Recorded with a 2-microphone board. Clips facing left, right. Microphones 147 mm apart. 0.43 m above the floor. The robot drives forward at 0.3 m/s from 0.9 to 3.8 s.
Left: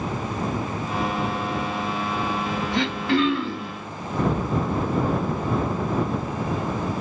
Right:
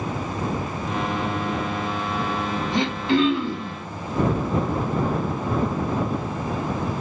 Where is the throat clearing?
20° right (ahead or behind), 3 m.